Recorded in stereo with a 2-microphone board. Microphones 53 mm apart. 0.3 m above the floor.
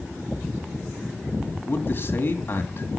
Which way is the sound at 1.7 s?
40° left (ahead or behind).